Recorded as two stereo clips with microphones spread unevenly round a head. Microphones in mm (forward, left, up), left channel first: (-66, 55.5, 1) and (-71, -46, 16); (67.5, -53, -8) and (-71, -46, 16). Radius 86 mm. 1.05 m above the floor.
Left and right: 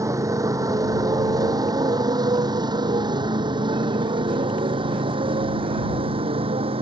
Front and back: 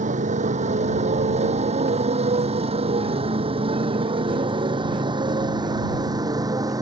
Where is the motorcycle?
150° right; by 6.8 s 120° right.